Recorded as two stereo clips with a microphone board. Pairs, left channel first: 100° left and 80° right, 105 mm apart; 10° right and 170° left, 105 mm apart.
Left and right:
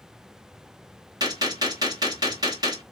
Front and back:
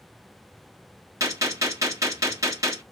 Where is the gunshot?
130° right, 1.4 m.